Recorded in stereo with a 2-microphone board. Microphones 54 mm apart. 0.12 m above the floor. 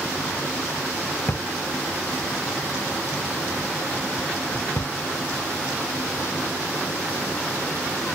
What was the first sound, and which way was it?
A drawer, 45° left (ahead or behind).